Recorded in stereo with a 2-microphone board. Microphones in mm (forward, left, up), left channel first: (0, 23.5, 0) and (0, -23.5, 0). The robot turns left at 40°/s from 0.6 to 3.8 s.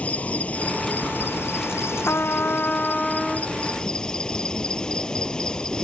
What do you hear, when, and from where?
0.0 s an insect: 145° left; by 5.8 s 20° left
2.1 s a trumpet: 55° left; by 3.5 s straight ahead